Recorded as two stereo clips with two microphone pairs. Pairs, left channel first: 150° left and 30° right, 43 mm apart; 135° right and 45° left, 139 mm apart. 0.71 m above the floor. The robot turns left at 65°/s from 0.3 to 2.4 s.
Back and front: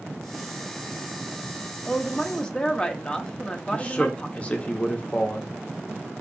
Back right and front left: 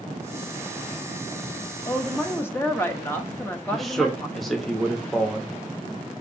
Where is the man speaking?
135° left, 0.7 m.